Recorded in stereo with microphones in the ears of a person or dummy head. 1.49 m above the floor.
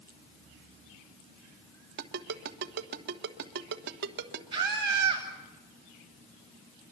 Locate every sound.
2.0 s a ringtone: 65° right (ahead or behind), 1.3 m
4.5 s a scream: 30° right (ahead or behind), 7 m